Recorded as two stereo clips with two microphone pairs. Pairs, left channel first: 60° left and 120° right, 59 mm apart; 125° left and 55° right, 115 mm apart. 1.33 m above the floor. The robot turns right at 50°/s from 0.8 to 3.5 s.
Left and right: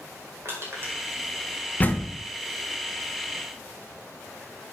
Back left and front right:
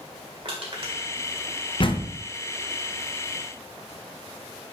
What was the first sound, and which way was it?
Crushing, 80° right.